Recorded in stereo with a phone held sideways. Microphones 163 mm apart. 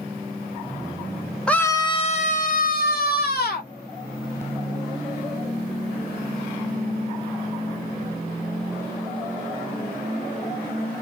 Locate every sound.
1.5 s a scream: 5° left (ahead or behind), 0.5 m; by 3.7 s 75° left (ahead or behind), 1.3 m